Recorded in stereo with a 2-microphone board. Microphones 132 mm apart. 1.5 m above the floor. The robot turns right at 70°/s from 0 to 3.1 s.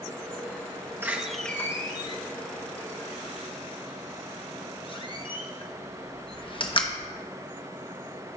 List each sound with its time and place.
1.0 s a door slam: 15° right (ahead or behind), 1.0 m; by 6.9 s 40° left (ahead or behind), 1.0 m